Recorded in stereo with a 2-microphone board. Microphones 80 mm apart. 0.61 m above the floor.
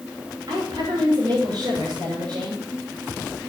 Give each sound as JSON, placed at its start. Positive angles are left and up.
{"t": 0.5, "sound": "a woman speaking", "side_deg": -65, "distance_m": 8.5}